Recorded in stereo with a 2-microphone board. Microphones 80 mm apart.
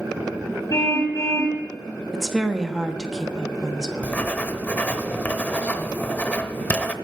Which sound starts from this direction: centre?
A woman speaking, at 2.1 s.